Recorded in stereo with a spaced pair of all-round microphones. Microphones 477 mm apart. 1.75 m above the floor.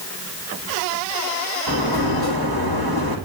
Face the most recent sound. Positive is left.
turn(degrees=-55)  # may be behind; listen again after turning